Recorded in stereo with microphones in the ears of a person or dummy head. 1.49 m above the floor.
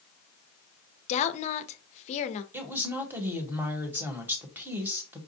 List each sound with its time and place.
1.1 s a woman speaking: 40° left (ahead or behind), 0.5 m
2.5 s a woman speaking: 10° right (ahead or behind), 1.0 m